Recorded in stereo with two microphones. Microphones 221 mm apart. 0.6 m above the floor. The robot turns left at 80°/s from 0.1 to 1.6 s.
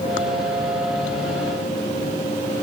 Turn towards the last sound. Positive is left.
No sound to turn to.